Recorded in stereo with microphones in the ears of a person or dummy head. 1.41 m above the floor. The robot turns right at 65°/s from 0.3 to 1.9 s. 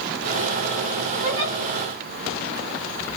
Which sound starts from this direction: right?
A giggle, at 1.2 s.